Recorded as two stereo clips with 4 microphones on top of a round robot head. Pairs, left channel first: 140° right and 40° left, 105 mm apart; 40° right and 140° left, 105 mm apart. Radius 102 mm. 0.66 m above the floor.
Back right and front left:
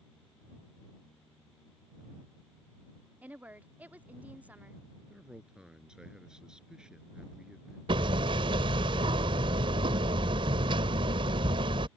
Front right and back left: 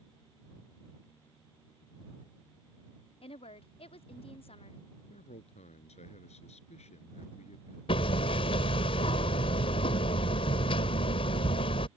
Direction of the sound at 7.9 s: Straight ahead.